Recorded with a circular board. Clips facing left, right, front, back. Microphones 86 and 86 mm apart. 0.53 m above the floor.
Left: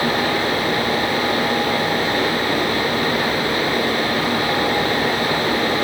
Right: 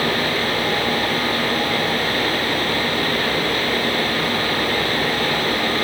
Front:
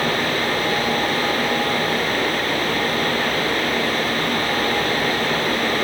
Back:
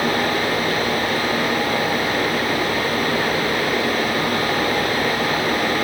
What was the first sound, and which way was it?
Only background noise.